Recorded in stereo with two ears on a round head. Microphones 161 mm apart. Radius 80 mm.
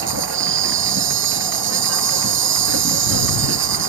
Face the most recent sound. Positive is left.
turn(degrees=-80)